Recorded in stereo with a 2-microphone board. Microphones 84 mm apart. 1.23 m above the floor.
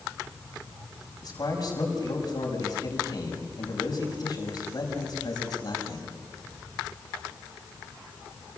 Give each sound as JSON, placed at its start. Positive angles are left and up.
{"t": 1.2, "sound": "a man speaking", "side_deg": 50, "distance_m": 6.5}